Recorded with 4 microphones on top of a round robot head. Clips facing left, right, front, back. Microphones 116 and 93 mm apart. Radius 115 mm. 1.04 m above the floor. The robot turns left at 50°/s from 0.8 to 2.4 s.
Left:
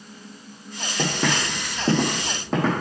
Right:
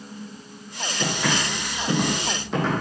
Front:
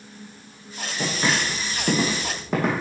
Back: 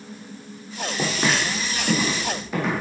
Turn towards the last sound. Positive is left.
turn(degrees=40)